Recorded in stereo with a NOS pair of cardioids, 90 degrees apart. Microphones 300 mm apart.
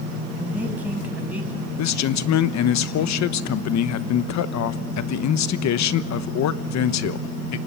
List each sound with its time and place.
0.4 s a man speaking: 5° right, 7 m
1.8 s a man speaking: 65° left, 1.2 m